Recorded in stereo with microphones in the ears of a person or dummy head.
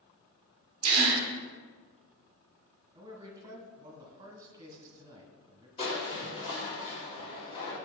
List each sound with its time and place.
0.8 s a gasp: 35° right (ahead or behind), 1.2 m
3.0 s a man speaking: 25° right (ahead or behind), 1.5 m
5.8 s crushing: 35° left (ahead or behind), 2 m